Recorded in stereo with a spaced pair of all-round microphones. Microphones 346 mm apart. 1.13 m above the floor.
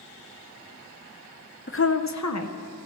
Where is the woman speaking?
35° left (ahead or behind), 0.6 m; by 2.8 s 45° left (ahead or behind), 0.9 m.